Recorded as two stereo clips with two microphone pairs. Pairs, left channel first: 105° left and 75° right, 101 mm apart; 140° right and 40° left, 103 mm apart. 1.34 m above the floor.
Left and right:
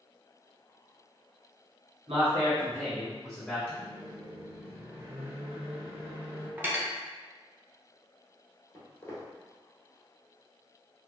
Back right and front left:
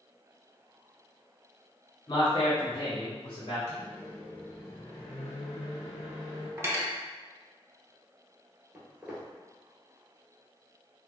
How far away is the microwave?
About 1.7 m.